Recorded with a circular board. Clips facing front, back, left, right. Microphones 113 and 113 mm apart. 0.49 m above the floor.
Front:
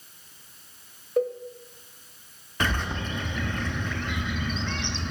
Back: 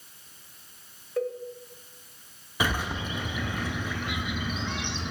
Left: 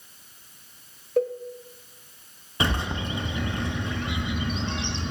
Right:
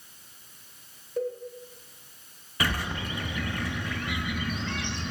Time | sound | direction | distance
1.2 | a cowbell | 70° left | 0.7 m
2.6 | a bird | 115° left | 0.5 m